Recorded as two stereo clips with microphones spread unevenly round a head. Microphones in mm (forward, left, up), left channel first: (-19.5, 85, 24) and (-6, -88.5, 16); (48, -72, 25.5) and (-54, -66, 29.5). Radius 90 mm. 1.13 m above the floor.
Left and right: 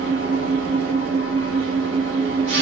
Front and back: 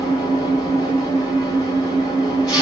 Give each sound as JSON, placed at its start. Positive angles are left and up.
{"t": 0.0, "sound": "an engine running", "azimuth_deg": -55, "distance_m": 7.0}